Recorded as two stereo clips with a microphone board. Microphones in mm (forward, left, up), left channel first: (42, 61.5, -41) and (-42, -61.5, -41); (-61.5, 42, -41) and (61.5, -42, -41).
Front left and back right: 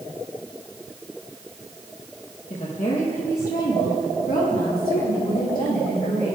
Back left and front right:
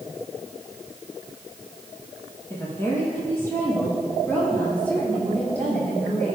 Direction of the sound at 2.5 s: 75° left.